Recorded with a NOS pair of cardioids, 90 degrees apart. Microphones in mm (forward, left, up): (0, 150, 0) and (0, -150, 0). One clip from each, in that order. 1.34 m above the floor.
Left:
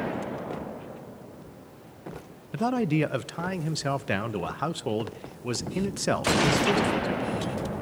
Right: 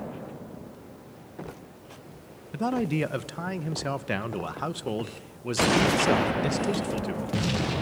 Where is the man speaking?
10° left, 0.8 m.